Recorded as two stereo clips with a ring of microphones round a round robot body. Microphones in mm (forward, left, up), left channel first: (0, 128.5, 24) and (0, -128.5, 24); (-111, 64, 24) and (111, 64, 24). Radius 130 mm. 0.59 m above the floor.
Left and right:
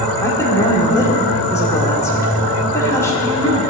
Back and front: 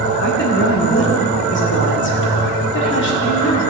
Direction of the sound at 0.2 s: 165° left.